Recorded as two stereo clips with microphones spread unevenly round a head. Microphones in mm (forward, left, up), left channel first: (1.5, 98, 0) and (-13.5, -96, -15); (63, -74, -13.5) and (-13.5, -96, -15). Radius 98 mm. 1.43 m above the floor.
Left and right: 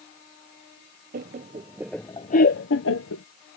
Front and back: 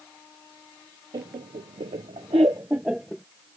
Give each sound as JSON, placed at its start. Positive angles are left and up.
{"t": 1.1, "sound": "laughter", "azimuth_deg": -140}